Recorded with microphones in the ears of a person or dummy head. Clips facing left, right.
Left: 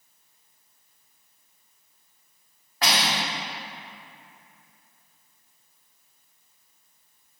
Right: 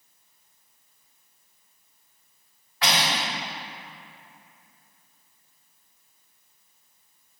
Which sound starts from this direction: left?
Cutlery clinking, at 2.8 s.